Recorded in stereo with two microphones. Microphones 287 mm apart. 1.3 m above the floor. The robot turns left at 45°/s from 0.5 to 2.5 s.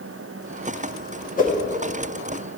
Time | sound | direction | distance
1.4 | a whoosh | 30° left (ahead or behind) | 0.8 m